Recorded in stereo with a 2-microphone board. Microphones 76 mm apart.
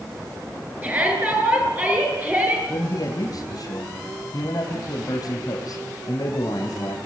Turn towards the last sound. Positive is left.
turn(degrees=60)  # may be behind; listen again after turning